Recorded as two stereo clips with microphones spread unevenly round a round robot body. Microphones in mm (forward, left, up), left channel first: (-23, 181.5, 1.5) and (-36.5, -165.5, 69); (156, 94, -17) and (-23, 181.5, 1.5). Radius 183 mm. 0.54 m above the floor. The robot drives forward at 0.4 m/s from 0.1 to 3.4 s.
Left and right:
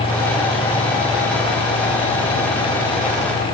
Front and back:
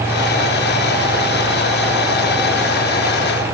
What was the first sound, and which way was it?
Only background noise.